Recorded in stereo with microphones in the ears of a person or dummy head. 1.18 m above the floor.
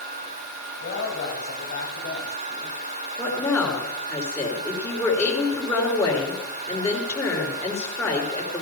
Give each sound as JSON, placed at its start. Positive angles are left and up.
{"t": 0.8, "sound": "a woman speaking", "side_deg": 55, "distance_m": 6.0}
{"t": 3.2, "sound": "a woman speaking", "side_deg": 20, "distance_m": 3.5}